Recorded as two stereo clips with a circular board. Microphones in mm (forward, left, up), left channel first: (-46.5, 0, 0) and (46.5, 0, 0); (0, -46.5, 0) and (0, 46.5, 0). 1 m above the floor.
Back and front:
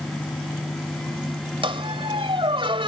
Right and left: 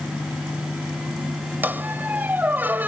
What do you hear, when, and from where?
1.6 s a squeak: 20° left